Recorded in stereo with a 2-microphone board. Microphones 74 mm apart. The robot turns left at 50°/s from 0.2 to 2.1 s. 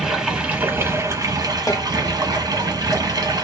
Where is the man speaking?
I don't hear a man speaking.